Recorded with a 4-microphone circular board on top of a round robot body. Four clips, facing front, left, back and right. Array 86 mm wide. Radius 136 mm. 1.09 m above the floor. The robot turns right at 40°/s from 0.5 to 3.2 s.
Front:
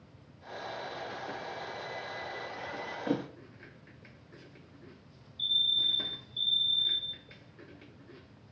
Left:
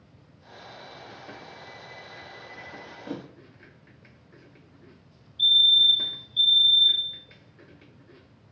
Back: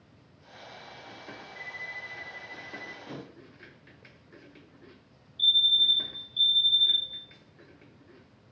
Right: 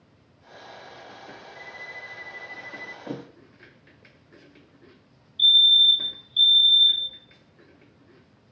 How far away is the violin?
About 1.8 m.